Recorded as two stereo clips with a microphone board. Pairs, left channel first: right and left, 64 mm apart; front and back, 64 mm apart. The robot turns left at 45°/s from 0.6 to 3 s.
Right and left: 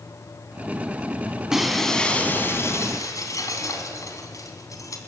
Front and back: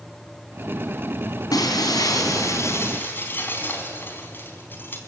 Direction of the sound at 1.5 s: 10° left.